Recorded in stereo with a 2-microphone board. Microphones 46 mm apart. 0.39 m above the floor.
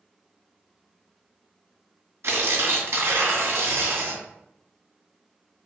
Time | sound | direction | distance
2.2 | tearing paper | 75° right (ahead or behind) | 2 m